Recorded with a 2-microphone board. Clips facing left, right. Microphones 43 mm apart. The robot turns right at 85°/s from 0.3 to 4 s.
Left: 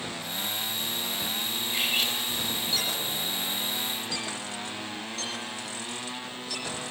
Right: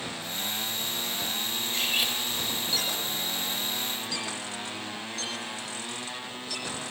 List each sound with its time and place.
1.7 s cutlery clinking: 160° left, 3.5 m; by 2.2 s 160° right, 3.5 m